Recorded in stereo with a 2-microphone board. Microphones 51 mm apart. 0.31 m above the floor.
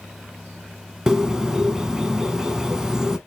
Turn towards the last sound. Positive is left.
turn(degrees=-10)  # may be behind; listen again after turning